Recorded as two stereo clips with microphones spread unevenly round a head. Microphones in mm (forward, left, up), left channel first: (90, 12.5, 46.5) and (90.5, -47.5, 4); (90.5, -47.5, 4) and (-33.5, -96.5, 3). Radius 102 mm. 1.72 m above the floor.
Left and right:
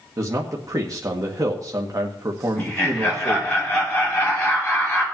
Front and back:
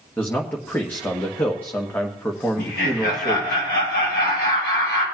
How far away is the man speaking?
About 1.5 m.